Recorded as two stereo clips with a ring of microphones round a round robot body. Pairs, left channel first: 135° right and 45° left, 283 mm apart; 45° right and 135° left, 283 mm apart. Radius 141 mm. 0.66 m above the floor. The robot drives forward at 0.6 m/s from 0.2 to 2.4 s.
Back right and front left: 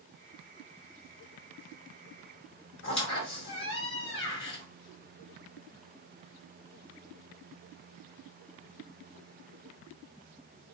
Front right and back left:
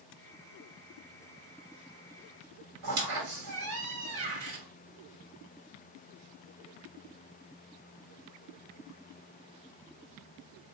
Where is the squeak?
175° left, 1.6 m.